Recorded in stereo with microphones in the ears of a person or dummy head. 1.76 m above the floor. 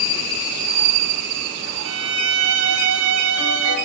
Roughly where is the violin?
Right.